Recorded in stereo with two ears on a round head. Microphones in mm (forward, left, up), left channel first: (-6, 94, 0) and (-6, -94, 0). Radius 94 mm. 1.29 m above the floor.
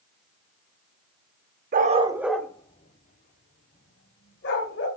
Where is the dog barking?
40° right (ahead or behind), 0.9 m; by 4.9 s 55° left (ahead or behind), 3 m.